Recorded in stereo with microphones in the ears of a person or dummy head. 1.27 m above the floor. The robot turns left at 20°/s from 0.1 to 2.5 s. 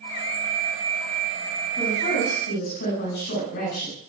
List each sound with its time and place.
1.8 s a woman speaking: 45° left (ahead or behind), 9 m; by 4.0 s 60° left (ahead or behind), 9 m